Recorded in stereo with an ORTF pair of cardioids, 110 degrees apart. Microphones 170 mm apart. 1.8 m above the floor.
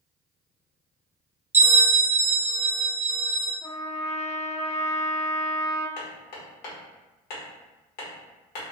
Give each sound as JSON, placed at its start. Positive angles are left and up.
{"t": 1.5, "sound": "a bell", "azimuth_deg": -15, "distance_m": 0.9}
{"t": 3.6, "sound": "a trumpet", "azimuth_deg": 45, "distance_m": 0.9}
{"t": 6.0, "sound": "hammering", "azimuth_deg": 70, "distance_m": 1.1}